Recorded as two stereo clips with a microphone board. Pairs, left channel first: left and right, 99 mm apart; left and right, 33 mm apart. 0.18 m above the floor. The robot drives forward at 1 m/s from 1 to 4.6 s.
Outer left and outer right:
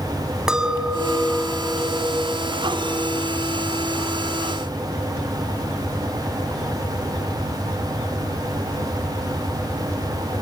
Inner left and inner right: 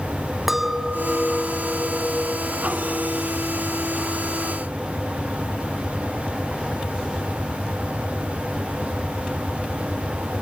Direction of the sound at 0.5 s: 5° right (ahead or behind).